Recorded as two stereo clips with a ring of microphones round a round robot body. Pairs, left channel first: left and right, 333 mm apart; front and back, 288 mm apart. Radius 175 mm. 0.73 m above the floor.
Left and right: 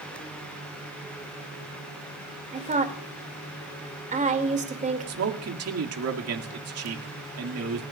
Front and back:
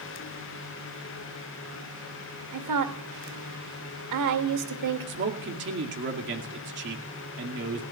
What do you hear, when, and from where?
2.5 s a woman speaking: 160° right, 2.5 m
5.1 s a man speaking: 130° right, 2 m